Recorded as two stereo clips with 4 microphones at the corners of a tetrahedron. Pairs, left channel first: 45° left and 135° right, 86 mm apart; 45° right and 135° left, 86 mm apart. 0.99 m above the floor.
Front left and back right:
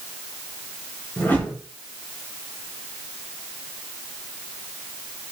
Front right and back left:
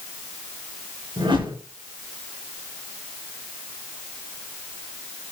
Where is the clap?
I don't hear a clap.